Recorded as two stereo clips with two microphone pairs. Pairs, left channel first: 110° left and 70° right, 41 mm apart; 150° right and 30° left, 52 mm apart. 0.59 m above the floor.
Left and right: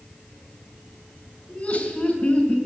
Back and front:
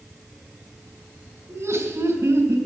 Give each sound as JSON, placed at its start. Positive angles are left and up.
{"t": 1.5, "sound": "laughter", "azimuth_deg": 50, "distance_m": 3.0}